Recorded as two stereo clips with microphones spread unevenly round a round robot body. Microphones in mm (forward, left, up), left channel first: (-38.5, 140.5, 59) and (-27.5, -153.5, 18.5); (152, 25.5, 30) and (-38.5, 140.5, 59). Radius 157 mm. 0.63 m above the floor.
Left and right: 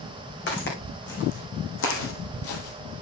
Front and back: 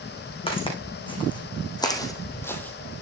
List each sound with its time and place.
0.5 s footsteps: 35° left, 3.5 m; by 3.0 s 65° left, 1.2 m